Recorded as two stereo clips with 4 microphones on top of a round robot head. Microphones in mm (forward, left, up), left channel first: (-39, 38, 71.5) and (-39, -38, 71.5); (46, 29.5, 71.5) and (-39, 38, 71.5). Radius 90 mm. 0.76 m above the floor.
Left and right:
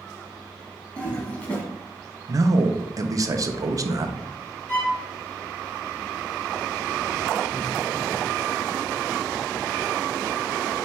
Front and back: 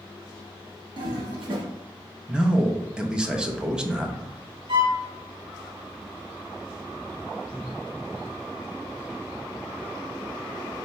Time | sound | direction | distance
1.0 | a toilet flushing | 160° left | 1.2 m
2.3 | a man speaking | 110° right | 0.6 m
4.7 | a violin | 155° left | 1.7 m